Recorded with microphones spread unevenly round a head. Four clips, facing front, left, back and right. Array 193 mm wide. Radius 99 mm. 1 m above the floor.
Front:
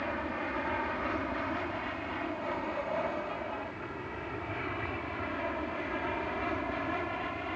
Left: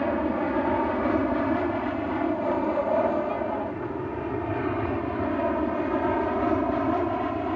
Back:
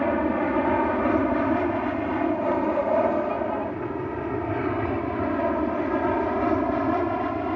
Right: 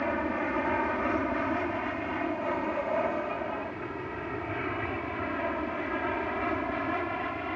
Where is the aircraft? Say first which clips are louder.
Left 5 dB, back 12 dB; 155° left; by 7.6 s 145° left.